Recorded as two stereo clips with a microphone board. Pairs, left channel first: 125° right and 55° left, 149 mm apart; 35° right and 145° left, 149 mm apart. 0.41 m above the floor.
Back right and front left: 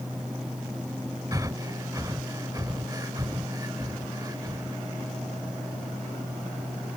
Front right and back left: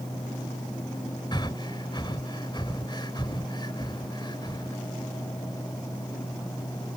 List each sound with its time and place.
1.3 s breathing: 5° left